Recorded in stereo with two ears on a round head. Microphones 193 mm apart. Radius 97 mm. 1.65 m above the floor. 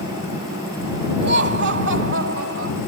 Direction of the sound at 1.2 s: 50° right (ahead or behind).